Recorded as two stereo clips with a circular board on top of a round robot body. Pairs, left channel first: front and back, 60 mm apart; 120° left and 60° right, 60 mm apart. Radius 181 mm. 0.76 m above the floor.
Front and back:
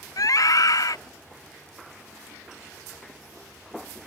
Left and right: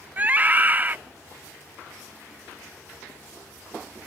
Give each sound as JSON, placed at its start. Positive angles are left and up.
{"t": 0.2, "sound": "a scream", "azimuth_deg": 0}